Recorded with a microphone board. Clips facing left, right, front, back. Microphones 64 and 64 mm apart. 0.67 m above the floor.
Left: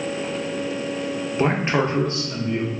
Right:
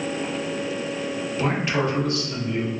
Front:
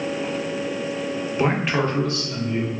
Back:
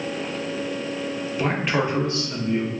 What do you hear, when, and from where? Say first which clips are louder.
1.4 s a man speaking: left 3 dB, front 2 dB; 50° left, 0.5 m; by 2.7 s 155° left, 0.9 m